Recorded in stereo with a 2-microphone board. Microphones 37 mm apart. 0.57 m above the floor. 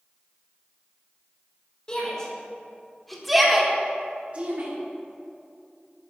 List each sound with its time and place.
1.9 s a shout: 25° left (ahead or behind), 2 m; by 4.7 s 45° right (ahead or behind), 1.3 m